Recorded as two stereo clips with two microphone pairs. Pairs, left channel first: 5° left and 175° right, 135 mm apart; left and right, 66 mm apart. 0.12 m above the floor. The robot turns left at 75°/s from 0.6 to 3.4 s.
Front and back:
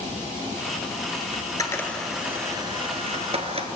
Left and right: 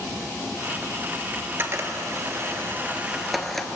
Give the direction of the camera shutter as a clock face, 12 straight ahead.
1 o'clock.